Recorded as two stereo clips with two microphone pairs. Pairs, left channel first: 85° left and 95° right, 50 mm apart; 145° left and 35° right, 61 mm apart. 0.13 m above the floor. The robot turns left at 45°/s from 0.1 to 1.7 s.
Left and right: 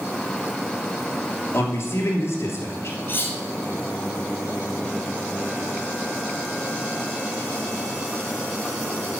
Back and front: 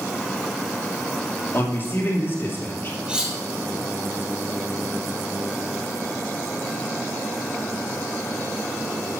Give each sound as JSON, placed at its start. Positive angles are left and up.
{"t": 1.5, "sound": "a man speaking", "azimuth_deg": 105, "distance_m": 2.5}
{"t": 3.1, "sound": "cutlery clinking", "azimuth_deg": 40, "distance_m": 1.9}